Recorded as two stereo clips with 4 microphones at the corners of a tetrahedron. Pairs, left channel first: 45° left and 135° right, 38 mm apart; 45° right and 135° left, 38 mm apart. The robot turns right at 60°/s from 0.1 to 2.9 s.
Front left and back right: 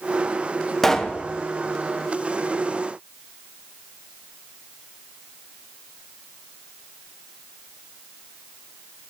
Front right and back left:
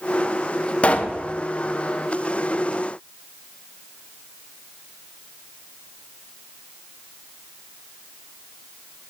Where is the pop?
35° right, 0.7 m; by 1.2 s 10° right, 0.7 m.